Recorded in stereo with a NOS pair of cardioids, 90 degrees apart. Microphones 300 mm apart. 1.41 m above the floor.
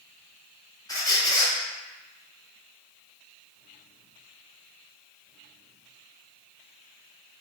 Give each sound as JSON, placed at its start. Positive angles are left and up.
{"t": 0.9, "sound": "a squeak", "azimuth_deg": 15, "distance_m": 0.9}